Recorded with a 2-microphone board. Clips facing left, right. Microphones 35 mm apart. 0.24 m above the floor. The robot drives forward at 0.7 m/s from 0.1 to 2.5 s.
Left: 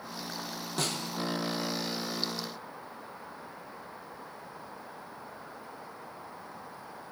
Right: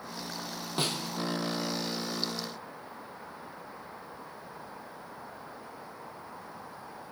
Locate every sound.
0.8 s a snare drum: 25° right (ahead or behind), 1.3 m; by 1.1 s 20° right (ahead or behind), 1.5 m